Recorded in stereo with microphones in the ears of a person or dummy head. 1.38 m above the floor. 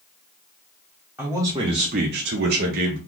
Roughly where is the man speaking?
Centre.